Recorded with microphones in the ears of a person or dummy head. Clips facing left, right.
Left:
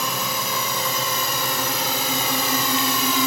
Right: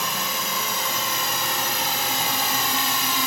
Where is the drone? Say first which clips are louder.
Left 3 dB; 75° left (ahead or behind); by 3.3 s 70° left (ahead or behind).